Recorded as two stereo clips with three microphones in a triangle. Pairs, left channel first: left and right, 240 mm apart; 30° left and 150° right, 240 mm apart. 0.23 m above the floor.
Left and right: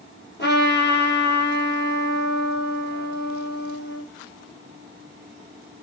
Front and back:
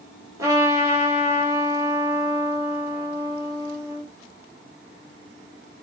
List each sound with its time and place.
0.4 s a trumpet: 135° left, 5.5 m